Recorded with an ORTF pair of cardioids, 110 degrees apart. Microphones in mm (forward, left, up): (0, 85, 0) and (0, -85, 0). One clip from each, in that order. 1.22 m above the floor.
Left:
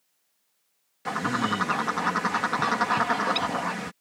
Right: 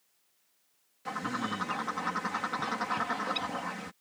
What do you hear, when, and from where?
1.1 s a bird: 45° left